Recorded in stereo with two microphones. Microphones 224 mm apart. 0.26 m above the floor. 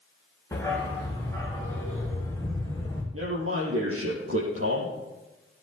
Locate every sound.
0.5 s a dog barking: 10° left (ahead or behind), 6 m; by 3.0 s 15° left (ahead or behind), 4 m
3.1 s a man speaking: 75° right (ahead or behind), 5.5 m